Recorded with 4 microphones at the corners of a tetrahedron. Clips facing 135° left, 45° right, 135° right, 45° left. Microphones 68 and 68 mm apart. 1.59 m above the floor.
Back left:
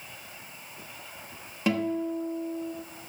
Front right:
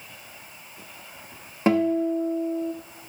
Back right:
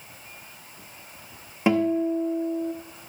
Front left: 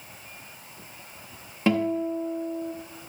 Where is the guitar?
70° right, 1.1 m.